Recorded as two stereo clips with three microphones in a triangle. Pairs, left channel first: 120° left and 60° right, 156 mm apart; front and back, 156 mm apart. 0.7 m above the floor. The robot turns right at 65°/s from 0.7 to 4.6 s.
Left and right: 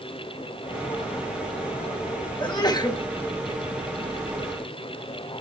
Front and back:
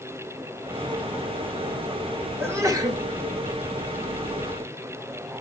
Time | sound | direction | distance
2.4 | a sneeze | 120° left | 1.0 m